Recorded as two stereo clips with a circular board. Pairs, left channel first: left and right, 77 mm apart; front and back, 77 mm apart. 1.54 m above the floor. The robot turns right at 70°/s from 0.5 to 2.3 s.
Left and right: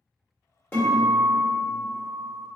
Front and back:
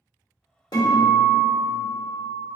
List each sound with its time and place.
0.7 s a guitar: 20° left, 1.3 m; by 2.5 s 130° left, 1.3 m